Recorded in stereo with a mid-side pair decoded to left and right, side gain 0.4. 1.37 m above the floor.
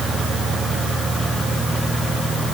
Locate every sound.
Only background noise.